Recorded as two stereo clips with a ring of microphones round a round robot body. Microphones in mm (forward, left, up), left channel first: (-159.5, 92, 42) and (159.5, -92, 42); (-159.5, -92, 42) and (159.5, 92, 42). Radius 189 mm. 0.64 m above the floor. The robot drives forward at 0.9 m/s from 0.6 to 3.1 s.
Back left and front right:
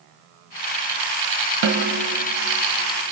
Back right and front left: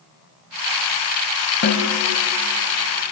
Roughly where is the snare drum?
Right.